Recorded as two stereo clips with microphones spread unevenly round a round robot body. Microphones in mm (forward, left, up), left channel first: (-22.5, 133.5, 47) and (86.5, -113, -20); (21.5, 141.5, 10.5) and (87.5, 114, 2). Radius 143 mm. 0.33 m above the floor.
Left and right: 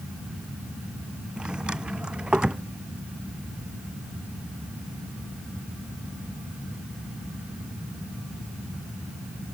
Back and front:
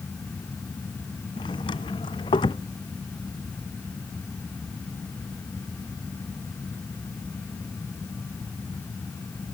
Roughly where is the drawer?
Behind right.